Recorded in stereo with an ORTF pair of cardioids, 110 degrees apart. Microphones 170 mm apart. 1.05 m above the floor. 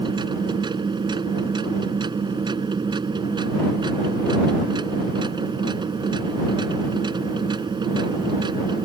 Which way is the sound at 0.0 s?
25° right.